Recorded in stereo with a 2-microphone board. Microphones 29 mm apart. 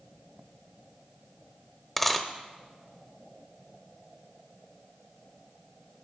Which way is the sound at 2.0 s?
10° left (ahead or behind).